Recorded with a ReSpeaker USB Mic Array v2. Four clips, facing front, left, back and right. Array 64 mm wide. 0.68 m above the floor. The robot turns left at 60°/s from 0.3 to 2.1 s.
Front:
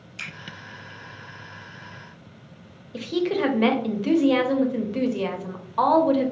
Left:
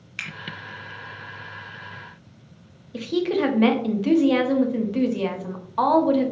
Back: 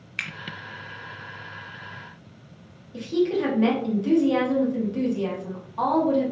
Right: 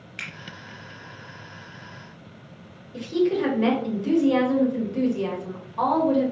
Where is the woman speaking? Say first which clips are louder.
Even, back 1 dB; 50° left, 0.6 m.